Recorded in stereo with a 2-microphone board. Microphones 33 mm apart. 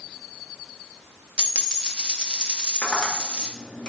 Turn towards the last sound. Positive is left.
turn(degrees=50)  # may be behind; listen again after turning